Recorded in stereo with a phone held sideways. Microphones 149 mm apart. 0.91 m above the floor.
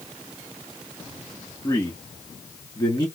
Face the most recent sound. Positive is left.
turn(degrees=30)  # may be behind; listen again after turning